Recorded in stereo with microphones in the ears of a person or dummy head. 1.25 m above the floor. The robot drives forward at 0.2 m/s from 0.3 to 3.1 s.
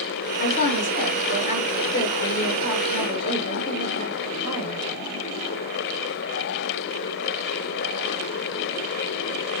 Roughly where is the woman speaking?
Left.